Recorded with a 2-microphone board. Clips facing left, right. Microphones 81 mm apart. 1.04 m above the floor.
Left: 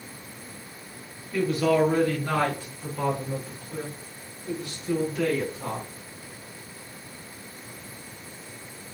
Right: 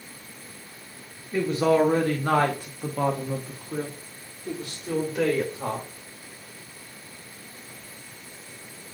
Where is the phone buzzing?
No phone buzzing in this recording.